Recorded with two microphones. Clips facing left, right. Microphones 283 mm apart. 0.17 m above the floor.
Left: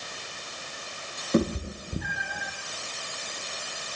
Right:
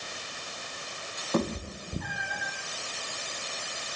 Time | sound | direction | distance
1.3 | a cat meowing | 20° left (ahead or behind) | 2.5 m